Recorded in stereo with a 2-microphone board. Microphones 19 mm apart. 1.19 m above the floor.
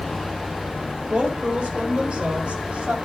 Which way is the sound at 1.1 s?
60° right (ahead or behind).